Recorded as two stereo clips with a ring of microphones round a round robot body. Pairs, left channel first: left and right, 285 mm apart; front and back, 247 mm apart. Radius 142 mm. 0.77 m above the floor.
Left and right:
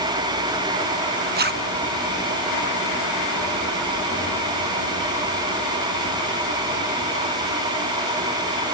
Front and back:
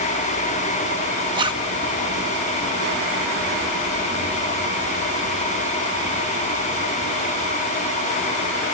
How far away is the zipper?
About 1.1 m.